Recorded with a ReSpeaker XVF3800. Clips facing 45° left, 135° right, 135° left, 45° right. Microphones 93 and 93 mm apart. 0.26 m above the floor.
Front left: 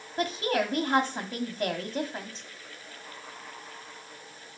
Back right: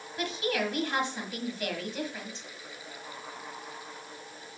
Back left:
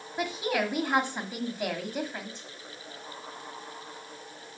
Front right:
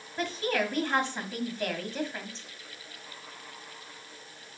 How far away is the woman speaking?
About 1.6 m.